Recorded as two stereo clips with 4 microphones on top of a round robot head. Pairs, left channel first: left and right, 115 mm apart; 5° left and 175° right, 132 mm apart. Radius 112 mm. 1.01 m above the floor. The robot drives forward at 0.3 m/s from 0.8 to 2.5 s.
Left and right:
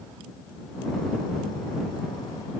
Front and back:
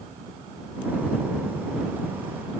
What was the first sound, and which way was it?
Only background noise.